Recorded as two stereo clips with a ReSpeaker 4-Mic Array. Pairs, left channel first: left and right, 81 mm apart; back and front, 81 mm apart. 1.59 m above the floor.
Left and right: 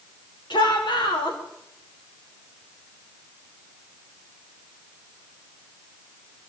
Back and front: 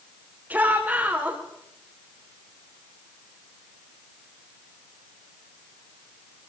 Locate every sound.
0.5 s a shout: 75° left, 7 m